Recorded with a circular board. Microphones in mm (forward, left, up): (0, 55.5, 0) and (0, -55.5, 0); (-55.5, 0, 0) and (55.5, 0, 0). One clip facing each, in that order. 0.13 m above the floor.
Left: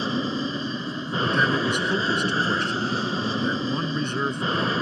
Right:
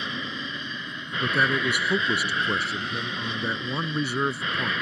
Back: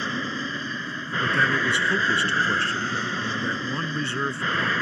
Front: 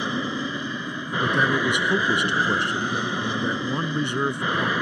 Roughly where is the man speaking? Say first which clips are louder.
Left 2 dB, front 2 dB; ahead.